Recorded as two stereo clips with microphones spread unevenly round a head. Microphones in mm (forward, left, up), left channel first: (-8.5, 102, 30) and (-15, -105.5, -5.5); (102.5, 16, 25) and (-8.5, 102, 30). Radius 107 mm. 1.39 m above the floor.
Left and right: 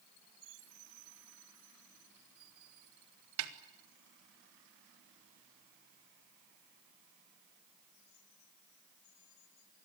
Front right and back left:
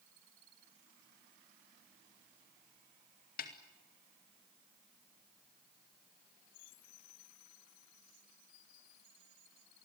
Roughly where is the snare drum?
Right.